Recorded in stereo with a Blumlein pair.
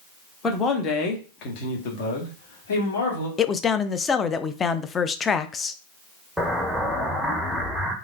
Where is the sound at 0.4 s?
15° left, 1.2 m; by 3.3 s 60° left, 2.5 m.